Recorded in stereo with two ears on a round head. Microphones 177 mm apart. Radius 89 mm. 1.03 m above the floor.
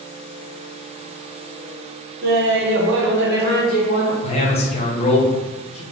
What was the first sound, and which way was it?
Laughter, 50° right (ahead or behind).